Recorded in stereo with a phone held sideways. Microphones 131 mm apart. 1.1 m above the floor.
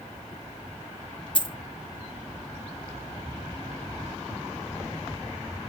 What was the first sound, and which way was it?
A dropped coin, 40° left (ahead or behind).